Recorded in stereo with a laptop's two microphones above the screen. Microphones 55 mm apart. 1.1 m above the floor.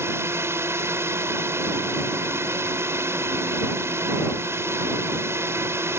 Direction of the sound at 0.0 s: 50° right (ahead or behind).